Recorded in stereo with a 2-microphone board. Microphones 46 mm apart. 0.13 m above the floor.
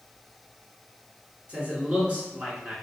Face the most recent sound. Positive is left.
turn(degrees=-30)  # may be behind; listen again after turning